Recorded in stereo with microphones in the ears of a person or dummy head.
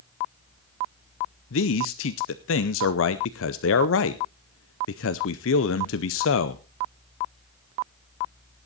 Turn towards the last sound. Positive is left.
turn(degrees=70)  # may be behind; listen again after turning